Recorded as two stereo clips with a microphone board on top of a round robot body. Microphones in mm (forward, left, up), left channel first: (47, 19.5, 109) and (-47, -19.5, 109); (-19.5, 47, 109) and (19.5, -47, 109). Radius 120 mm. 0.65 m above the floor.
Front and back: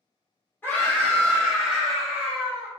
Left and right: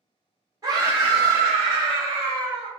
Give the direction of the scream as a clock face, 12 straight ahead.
1 o'clock.